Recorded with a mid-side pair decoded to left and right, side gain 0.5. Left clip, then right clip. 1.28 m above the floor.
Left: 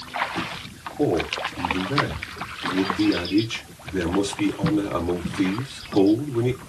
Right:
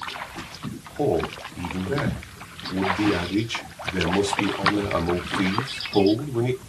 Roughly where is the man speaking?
Ahead right.